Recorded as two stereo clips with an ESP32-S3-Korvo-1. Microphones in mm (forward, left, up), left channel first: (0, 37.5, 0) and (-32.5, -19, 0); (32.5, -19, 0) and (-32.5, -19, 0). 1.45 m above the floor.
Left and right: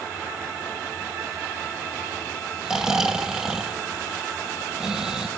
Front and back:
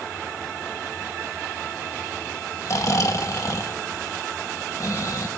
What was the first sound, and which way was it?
Snoring, 40° right.